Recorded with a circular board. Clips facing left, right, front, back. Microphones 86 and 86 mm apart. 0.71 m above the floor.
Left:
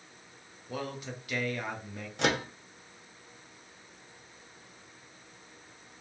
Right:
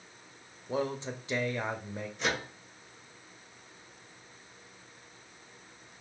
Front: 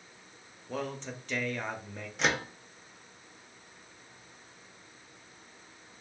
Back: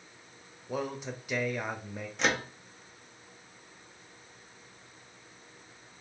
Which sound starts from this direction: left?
A microwave, at 2.2 s.